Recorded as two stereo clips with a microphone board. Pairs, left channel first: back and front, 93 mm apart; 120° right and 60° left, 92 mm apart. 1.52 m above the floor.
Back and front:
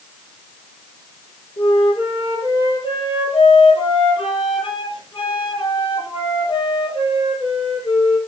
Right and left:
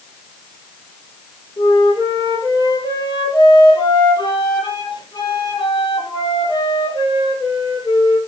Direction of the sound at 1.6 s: 160° right.